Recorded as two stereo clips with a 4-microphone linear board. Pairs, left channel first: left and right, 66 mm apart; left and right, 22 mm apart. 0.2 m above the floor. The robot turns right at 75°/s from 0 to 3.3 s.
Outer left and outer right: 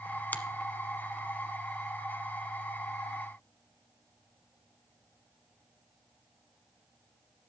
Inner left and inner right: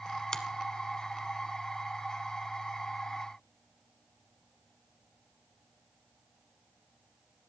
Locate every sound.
0.3 s a finger snap: 25° left (ahead or behind), 1.1 m; by 0.5 s 30° left (ahead or behind), 1.1 m